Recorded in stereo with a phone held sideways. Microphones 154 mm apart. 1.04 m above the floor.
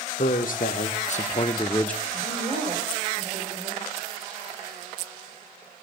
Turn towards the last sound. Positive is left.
turn(degrees=-50)  # may be behind; listen again after turning